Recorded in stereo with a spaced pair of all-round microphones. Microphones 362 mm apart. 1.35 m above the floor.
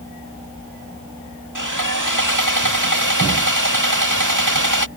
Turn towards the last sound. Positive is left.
turn(degrees=-55)  # may be behind; listen again after turning